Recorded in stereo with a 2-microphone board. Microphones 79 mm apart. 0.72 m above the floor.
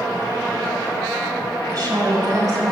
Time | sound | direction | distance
1.7 | a woman speaking | 50° right (ahead or behind) | 3.5 m